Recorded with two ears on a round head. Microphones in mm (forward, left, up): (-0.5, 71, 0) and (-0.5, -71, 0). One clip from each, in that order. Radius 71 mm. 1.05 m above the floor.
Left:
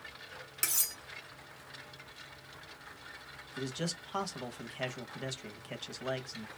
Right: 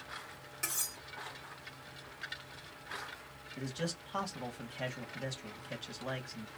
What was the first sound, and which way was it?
Cutlery clinking, 65° left (ahead or behind).